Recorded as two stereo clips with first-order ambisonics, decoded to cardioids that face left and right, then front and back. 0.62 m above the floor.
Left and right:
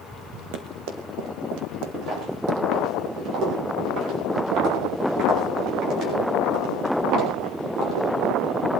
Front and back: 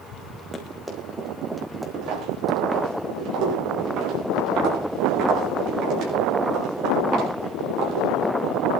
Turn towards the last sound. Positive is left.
turn(degrees=-140)